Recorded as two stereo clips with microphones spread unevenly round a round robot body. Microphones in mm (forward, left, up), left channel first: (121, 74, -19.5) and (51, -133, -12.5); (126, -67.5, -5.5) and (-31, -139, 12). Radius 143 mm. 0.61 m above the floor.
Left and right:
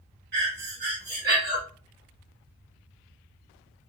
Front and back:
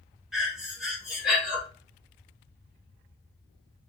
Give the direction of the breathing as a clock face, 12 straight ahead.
2 o'clock.